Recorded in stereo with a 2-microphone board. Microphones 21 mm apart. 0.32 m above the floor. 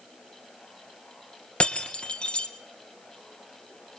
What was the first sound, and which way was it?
Breaking glass, 60° left (ahead or behind).